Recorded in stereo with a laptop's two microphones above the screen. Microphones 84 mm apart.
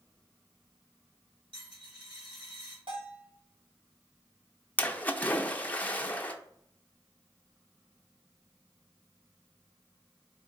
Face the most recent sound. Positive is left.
turn(degrees=20)  # may be behind; listen again after turning